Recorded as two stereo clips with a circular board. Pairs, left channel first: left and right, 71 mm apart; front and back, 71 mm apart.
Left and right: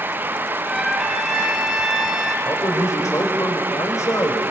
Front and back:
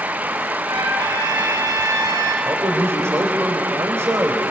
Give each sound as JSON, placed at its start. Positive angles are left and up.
{"t": 0.7, "sound": "a trumpet", "azimuth_deg": -175, "distance_m": 2.5}
{"t": 2.5, "sound": "a man speaking", "azimuth_deg": 130, "distance_m": 3.0}